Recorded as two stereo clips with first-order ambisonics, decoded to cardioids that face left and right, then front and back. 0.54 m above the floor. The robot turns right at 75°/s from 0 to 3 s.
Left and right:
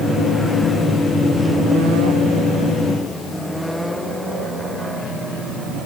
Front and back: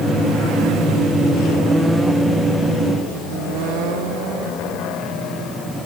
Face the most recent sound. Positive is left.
No sound to turn to.